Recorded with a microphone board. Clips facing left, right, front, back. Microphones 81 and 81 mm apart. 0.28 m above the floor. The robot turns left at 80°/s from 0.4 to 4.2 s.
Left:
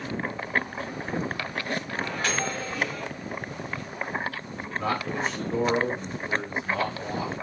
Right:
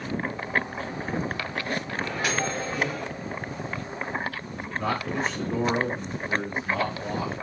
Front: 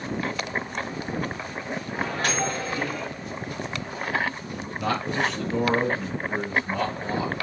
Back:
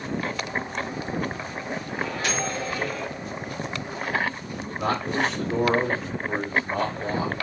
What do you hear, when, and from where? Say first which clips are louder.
1.9 s a microwave: right 1 dB, front 2 dB; 10° left, 1.5 m; by 3.1 s 80° right, 1.5 m
4.8 s a man speaking: even, back 1 dB; straight behind, 2.5 m